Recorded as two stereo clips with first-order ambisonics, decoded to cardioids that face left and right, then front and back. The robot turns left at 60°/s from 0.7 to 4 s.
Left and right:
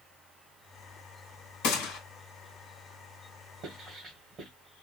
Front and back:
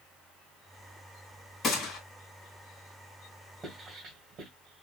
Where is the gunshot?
70° left, 2.5 m; by 2.0 s 45° left, 2.5 m.